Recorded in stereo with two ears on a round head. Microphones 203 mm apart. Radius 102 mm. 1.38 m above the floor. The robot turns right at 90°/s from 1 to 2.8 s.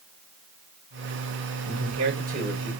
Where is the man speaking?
95° right, 5.5 m; by 2.7 s straight ahead, 5.5 m.